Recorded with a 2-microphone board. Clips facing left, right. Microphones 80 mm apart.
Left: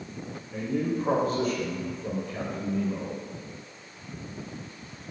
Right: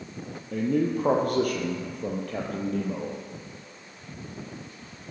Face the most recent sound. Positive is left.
turn(degrees=-65)  # may be behind; listen again after turning